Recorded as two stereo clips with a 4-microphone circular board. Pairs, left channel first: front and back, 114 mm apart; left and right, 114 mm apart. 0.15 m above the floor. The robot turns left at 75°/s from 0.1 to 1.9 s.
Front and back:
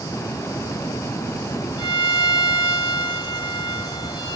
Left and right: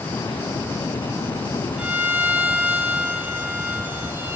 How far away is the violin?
About 0.7 m.